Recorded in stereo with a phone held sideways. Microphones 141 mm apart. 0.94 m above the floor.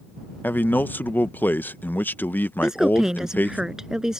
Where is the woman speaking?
5° right (ahead or behind).